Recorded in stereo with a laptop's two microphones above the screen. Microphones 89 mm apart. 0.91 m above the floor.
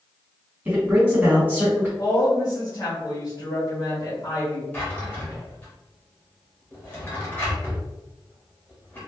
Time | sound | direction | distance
0.7 | a man speaking | 20° right (ahead or behind) | 1.5 m
2.0 | a woman speaking | 35° left (ahead or behind) | 1.0 m
4.7 | a drawer | 20° left (ahead or behind) | 0.9 m